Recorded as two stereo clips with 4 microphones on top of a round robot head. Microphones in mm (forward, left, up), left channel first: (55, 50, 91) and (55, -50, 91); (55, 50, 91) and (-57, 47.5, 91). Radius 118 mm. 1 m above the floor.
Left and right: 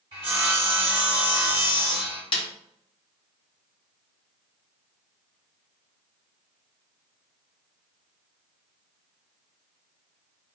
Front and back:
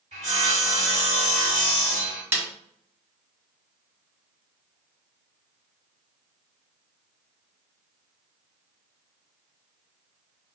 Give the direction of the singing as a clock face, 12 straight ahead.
I don't hear singing.